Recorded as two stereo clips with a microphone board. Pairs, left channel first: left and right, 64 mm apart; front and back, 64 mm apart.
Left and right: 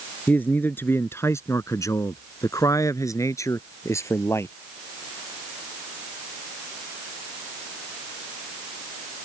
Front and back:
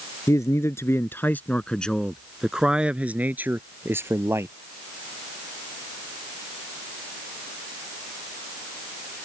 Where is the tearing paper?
I don't hear tearing paper.